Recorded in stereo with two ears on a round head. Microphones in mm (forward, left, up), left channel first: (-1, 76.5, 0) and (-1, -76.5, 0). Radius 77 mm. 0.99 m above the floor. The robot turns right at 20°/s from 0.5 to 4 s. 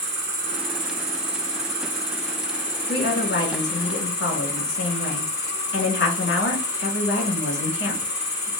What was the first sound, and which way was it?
An insect, 50° right.